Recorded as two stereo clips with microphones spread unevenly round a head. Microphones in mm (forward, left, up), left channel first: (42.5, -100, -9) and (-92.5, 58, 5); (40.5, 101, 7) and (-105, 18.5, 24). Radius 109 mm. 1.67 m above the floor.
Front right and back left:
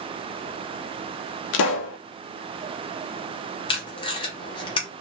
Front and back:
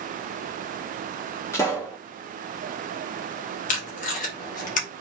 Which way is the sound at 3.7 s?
10° left.